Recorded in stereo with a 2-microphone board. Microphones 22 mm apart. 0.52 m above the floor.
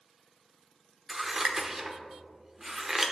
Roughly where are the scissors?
Right.